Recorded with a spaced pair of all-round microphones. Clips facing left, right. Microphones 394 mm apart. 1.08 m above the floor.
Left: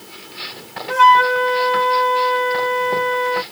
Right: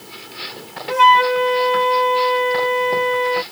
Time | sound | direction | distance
0.9 | a flute | 25° left (ahead or behind) | ?